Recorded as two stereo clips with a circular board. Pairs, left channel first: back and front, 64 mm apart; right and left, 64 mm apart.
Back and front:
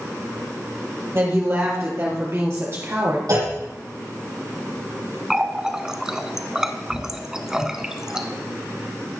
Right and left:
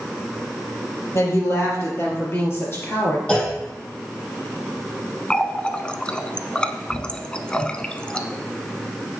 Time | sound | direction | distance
1.1 | a woman speaking | 45° right | 4 m
3.3 | a clunk | 15° right | 5 m
5.3 | a running tap | 55° right | 0.7 m